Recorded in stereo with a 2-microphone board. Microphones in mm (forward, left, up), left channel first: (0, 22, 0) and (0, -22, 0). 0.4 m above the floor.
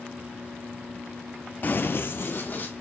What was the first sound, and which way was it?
Running footsteps, 40° left (ahead or behind).